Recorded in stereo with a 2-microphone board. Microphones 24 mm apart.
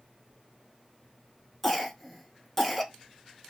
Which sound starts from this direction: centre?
A cough, at 1.6 s.